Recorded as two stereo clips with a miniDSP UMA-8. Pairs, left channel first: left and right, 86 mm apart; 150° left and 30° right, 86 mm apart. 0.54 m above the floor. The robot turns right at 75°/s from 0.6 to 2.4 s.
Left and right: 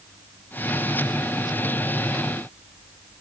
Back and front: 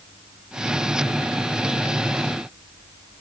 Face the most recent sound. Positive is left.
No sound to turn to.